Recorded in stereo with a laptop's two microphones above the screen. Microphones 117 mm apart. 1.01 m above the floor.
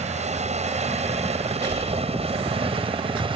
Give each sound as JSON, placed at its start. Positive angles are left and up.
{"t": 0.0, "sound": "a helicopter", "side_deg": -75}
{"t": 1.6, "sound": "breathing", "side_deg": -35}